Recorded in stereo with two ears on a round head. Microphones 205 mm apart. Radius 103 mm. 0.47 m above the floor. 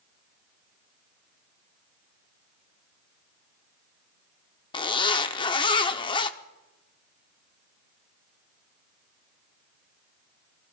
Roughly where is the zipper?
Left.